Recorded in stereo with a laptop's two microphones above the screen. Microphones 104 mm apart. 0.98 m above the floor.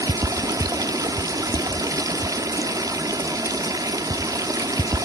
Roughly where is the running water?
Right.